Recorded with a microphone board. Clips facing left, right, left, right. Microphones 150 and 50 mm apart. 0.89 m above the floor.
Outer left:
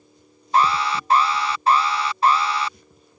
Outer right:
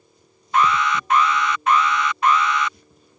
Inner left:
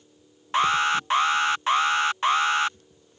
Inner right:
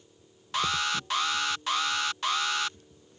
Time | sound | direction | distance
0.5 | an alarm | 30° left (ahead or behind) | ?